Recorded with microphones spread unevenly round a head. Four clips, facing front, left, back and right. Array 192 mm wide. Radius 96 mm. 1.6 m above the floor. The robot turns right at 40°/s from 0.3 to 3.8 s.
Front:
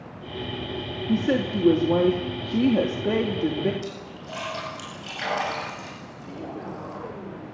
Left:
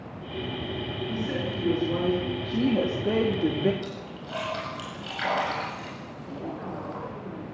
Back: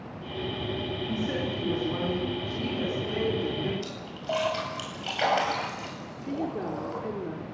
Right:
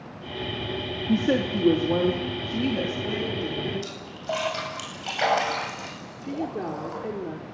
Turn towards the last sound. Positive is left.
turn(degrees=-120)